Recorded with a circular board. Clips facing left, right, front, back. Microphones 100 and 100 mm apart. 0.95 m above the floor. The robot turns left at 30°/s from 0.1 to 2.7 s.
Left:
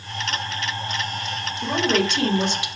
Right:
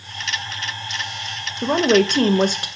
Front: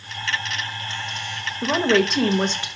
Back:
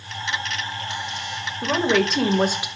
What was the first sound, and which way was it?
A woman speaking, 75° right.